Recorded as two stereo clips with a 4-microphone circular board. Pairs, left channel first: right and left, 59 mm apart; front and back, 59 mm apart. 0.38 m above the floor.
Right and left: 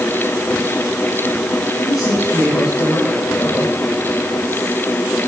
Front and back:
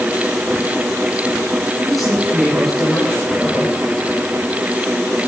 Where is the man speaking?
85° right, 8 m.